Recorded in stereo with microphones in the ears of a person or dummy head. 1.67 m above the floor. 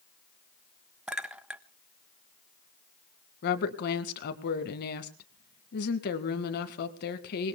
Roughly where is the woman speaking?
Left.